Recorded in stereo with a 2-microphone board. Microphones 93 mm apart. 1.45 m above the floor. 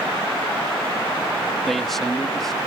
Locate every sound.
1.7 s a man speaking: 5° left (ahead or behind)